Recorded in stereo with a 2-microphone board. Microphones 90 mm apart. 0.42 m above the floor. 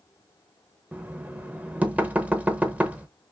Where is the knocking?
15° right (ahead or behind), 0.7 m.